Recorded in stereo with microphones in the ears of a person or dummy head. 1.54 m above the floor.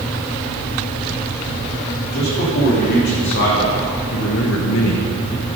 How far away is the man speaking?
About 3.5 m.